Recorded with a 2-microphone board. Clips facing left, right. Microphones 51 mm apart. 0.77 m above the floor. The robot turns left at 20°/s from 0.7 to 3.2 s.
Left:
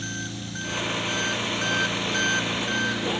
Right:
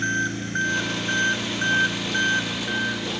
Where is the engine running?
130° right; by 3.2 s straight behind.